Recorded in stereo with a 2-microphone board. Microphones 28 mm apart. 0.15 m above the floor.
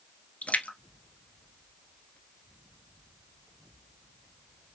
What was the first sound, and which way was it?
A splash, 60° left (ahead or behind).